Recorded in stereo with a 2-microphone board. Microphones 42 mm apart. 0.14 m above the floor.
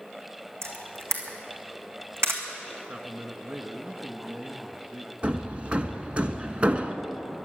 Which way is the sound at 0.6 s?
75° right (ahead or behind).